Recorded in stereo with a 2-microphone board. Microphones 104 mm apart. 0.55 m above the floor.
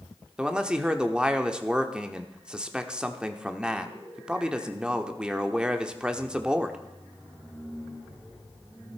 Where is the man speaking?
10° right (ahead or behind), 1.0 m.